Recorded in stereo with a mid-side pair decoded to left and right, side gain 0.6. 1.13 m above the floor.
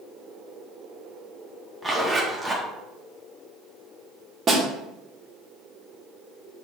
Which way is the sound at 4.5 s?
30° right.